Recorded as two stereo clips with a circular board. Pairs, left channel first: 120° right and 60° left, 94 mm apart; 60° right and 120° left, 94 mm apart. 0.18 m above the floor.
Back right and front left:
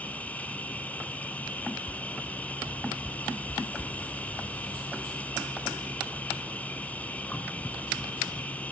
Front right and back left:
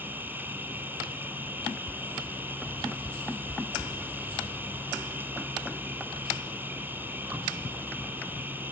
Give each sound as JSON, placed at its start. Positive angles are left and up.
{"t": 0.0, "sound": "an insect", "azimuth_deg": 175, "distance_m": 1.4}